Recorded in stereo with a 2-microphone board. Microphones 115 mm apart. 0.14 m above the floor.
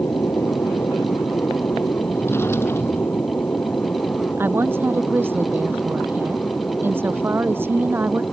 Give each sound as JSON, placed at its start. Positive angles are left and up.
{"t": 0.0, "sound": "an aircraft", "side_deg": 25}
{"t": 2.1, "sound": "a drawer", "side_deg": 20}
{"t": 4.4, "sound": "a woman speaking", "side_deg": -20}